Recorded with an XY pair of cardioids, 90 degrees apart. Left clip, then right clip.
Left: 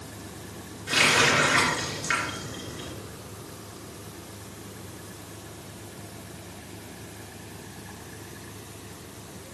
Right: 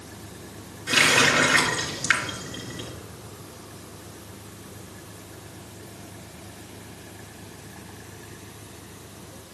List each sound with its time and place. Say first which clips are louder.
0.9 s a running tap: right 2 dB; 55° right, 2.5 m